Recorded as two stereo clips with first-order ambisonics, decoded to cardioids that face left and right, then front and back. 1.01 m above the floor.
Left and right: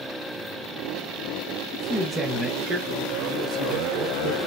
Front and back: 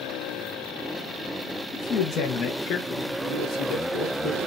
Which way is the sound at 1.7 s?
35° left.